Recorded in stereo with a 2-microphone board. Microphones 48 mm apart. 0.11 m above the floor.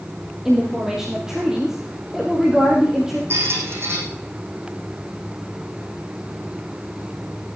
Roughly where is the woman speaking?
Centre.